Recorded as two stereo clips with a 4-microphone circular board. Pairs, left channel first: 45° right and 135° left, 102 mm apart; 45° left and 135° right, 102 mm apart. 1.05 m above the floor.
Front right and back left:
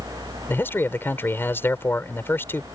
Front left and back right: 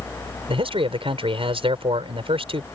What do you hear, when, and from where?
0.5 s a man speaking: 115° right